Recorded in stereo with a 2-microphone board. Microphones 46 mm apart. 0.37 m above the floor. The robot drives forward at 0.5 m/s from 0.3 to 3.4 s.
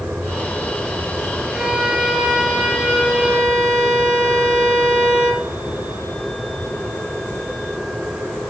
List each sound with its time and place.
1.5 s a violin: 15° right (ahead or behind), 1.9 m; by 5.5 s 10° right (ahead or behind), 3 m